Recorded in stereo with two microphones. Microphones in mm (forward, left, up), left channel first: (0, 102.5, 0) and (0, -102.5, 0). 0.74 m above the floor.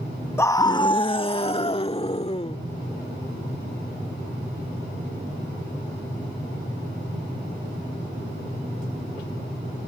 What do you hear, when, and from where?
0.4 s a scream: 10° left (ahead or behind); by 2.6 s 30° left (ahead or behind)